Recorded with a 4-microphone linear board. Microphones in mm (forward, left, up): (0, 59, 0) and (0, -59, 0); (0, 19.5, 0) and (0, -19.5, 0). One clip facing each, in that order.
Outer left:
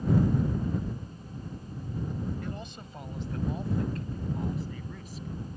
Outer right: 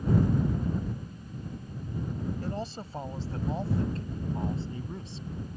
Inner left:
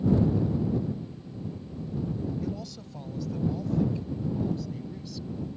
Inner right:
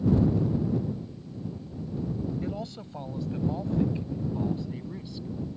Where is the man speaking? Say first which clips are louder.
Outer right 4 dB, inner right 1 dB; 35° right (ahead or behind); by 5.3 s 25° right (ahead or behind).